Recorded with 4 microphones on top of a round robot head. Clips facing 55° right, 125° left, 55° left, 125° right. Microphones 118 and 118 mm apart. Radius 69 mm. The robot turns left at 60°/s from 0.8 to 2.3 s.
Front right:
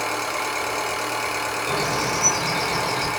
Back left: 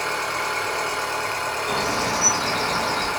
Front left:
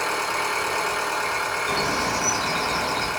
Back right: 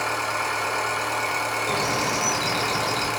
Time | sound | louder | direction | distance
0.0 | an engine running | even, front left 1 dB | 15° right | 1.1 m
1.7 | a bird | even, front left 1 dB | 75° right | 2 m